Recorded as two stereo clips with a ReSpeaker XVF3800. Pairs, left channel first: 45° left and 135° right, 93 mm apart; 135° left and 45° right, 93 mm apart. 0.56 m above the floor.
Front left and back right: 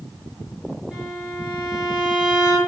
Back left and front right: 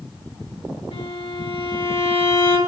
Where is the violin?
145° left, 6.5 m.